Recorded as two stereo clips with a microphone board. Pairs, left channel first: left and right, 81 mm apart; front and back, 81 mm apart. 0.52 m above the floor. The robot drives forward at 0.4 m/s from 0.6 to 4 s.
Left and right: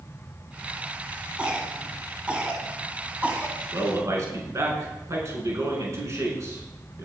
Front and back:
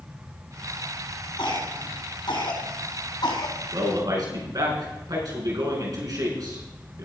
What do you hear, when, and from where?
1.4 s a cough: 15° right, 4.5 m
3.7 s a man speaking: 140° right, 5.5 m